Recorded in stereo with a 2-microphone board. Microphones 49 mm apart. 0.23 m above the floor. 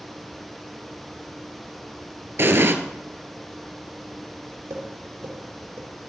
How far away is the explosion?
About 1.0 m.